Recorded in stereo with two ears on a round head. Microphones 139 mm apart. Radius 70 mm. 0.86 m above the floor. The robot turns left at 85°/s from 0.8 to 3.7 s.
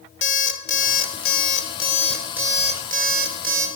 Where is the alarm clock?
120° left, 0.9 m; by 3.7 s 125° right, 0.9 m.